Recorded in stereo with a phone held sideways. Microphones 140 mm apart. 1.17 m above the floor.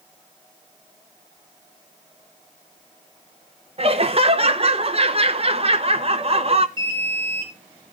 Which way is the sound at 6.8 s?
35° right (ahead or behind).